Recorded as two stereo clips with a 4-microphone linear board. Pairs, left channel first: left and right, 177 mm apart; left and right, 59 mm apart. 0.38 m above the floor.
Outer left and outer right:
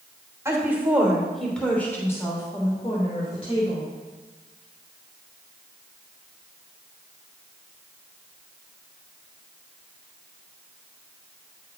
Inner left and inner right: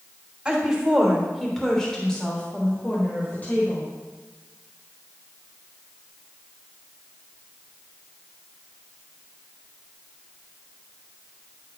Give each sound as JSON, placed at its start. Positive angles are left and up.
{"t": 0.5, "sound": "a woman speaking", "side_deg": -15, "distance_m": 1.3}